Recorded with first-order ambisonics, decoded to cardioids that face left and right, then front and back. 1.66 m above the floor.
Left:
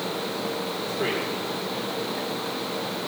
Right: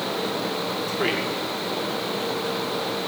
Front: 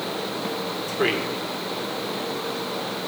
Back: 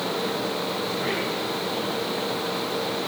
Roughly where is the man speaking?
Ahead right.